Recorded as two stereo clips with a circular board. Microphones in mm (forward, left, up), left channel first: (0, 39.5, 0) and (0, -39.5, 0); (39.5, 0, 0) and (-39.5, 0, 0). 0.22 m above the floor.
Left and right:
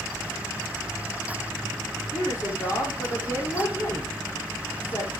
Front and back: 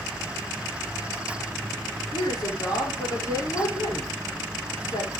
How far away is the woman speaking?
About 8.5 m.